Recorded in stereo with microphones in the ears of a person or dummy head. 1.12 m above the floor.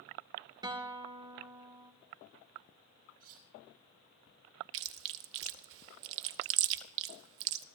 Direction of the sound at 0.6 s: 25° right (ahead or behind).